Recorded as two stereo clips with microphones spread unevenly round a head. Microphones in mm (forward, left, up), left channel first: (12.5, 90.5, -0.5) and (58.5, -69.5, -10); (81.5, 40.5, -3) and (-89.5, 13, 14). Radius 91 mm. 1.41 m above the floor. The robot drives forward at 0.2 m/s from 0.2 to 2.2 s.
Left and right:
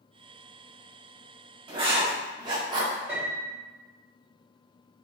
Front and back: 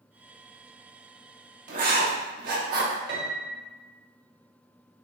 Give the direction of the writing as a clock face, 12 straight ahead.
4 o'clock.